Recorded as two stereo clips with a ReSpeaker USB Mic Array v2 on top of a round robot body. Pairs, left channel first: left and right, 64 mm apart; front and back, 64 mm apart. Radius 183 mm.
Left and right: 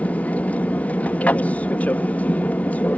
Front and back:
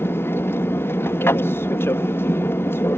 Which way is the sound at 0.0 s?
35° left.